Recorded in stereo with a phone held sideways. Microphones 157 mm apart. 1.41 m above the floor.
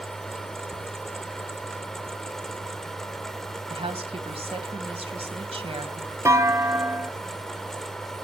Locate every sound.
0.0 s a fan: 5° left (ahead or behind), 1.2 m
3.7 s a woman speaking: 40° right (ahead or behind), 1.8 m
6.2 s a clunk: 20° right (ahead or behind), 0.8 m